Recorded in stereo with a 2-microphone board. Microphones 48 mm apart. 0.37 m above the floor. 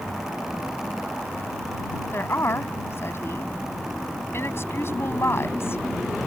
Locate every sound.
2.1 s a woman speaking: 55° left (ahead or behind)